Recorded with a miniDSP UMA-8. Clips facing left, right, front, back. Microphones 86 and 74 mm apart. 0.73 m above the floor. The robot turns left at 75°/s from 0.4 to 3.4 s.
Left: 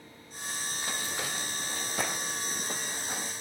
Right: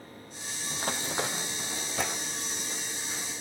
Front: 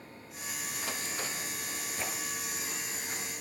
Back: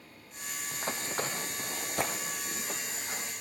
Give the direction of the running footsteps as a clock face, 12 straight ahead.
4 o'clock.